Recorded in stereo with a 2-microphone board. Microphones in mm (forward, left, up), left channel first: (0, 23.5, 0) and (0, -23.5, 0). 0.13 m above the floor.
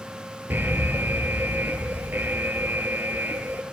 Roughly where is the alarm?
Right.